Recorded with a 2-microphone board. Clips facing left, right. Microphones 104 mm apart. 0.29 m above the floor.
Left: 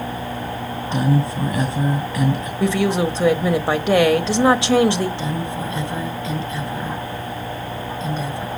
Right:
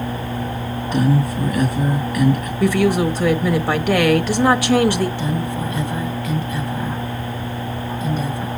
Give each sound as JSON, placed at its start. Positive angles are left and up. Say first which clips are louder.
{"t": 0.9, "sound": "a woman speaking", "louder": "right 2 dB", "side_deg": 25, "distance_m": 2.0}
{"t": 2.6, "sound": "a woman speaking", "louder": "right 2 dB", "side_deg": 25, "distance_m": 1.1}
{"t": 5.2, "sound": "a woman speaking", "louder": "right 2 dB", "side_deg": 25, "distance_m": 2.0}